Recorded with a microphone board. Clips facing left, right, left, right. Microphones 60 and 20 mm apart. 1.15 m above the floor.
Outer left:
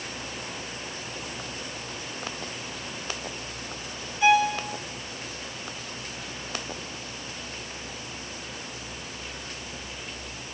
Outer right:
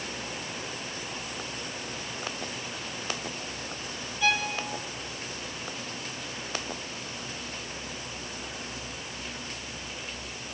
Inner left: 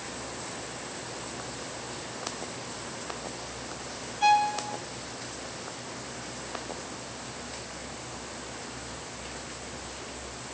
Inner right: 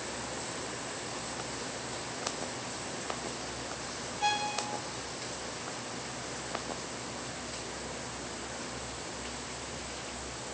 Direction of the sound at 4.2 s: 20° left (ahead or behind).